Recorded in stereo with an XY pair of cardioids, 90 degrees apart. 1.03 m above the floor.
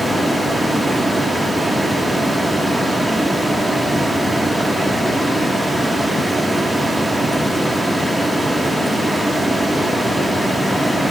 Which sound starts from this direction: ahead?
A fan, at 0.0 s.